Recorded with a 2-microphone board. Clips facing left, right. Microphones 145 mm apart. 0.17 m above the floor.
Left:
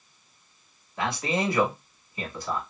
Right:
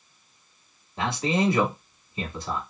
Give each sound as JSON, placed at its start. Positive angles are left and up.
{"t": 1.0, "sound": "a man speaking", "side_deg": -25, "distance_m": 1.2}